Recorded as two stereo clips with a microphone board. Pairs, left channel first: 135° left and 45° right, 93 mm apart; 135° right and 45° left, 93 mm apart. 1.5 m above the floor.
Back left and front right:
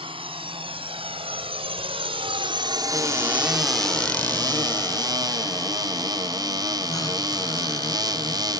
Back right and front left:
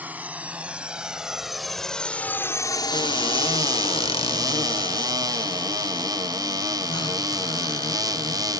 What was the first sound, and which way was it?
A drone, 30° right.